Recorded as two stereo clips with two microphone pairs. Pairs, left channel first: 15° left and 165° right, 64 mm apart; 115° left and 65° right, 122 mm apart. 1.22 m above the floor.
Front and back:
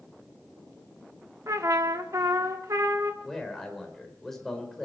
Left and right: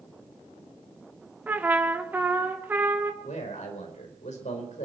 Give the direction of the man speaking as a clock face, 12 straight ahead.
9 o'clock.